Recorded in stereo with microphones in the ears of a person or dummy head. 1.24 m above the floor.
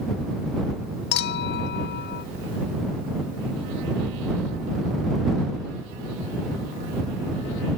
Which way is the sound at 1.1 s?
55° left (ahead or behind).